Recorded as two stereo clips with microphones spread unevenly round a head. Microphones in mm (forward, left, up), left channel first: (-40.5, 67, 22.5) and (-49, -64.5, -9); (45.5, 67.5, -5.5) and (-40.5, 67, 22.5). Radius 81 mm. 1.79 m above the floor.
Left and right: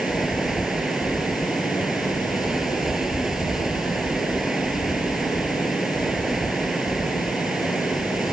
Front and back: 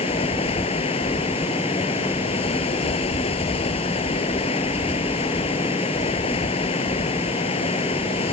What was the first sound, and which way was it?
Running water, 5° right.